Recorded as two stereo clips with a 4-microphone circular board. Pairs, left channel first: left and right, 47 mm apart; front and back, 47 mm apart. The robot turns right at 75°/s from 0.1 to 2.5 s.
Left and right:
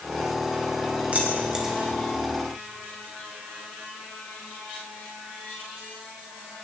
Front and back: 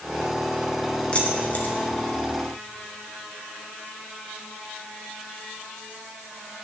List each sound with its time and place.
1.1 s keys jangling: 55° right, 1.3 m; by 1.8 s 5° right, 1.3 m